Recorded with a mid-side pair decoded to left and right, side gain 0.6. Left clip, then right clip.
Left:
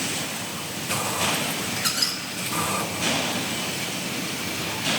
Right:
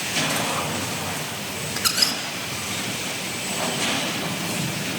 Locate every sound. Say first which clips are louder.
1.8 s a squeak: right 5 dB; 25° right, 2.5 m